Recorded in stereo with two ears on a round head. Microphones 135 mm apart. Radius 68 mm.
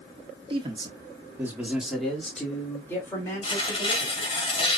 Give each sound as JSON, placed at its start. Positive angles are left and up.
{"t": 0.5, "sound": "a man speaking", "side_deg": -35, "distance_m": 1.2}
{"t": 3.4, "sound": "tearing paper", "side_deg": 35, "distance_m": 2.0}